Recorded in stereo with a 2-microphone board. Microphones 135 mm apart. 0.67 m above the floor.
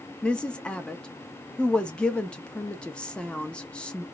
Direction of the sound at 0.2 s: 10° left (ahead or behind).